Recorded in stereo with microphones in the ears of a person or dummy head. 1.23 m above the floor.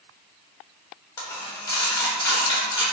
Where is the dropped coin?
20° left (ahead or behind), 0.6 m.